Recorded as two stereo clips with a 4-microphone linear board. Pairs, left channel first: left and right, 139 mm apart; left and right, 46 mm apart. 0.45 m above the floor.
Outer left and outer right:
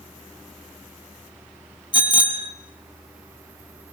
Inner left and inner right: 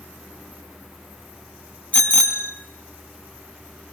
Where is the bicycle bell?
35° left (ahead or behind), 2.5 m.